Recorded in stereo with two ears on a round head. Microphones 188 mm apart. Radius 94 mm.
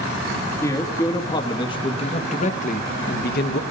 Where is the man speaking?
15° left (ahead or behind), 2 m; by 3.6 s 55° left (ahead or behind), 1.2 m.